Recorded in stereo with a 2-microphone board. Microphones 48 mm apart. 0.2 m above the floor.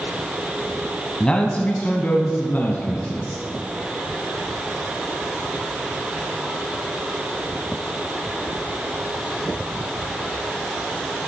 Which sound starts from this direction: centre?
A man speaking, at 1.2 s.